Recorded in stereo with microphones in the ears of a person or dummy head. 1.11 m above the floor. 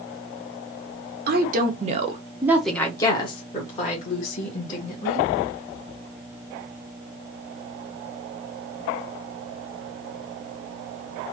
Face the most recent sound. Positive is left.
turn(degrees=45)  # may be behind; listen again after turning